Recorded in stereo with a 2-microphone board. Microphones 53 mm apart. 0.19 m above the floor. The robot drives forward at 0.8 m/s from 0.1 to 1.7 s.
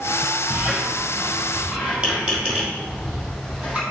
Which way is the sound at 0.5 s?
30° right (ahead or behind).